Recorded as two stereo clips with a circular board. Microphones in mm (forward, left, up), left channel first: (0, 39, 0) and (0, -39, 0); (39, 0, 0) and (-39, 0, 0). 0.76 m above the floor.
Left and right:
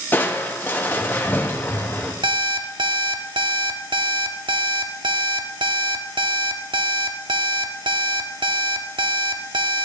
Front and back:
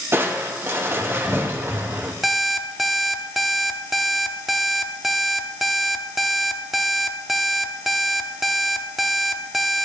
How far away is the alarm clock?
About 0.6 m.